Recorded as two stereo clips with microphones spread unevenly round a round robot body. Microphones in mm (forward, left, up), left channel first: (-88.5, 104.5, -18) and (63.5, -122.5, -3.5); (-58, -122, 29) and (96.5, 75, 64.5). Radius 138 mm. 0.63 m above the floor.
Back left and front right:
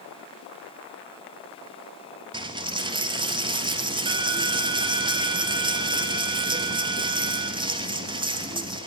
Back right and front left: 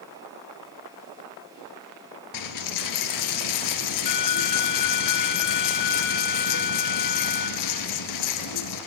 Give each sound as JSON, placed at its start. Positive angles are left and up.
{"t": 2.3, "sound": "a dropped coin", "azimuth_deg": -130, "distance_m": 1.5}